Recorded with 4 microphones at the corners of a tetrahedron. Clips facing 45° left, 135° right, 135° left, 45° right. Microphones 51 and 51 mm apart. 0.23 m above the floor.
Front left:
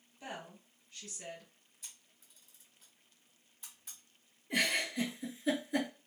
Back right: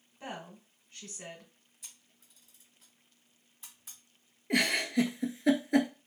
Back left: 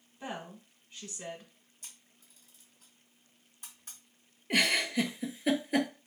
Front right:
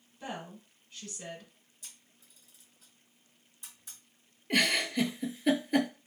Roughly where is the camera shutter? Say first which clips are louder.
Even, even; behind left.